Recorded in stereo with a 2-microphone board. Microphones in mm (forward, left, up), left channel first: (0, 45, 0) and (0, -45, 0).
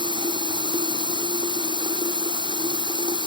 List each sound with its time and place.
0.0 s running water: 60° right (ahead or behind)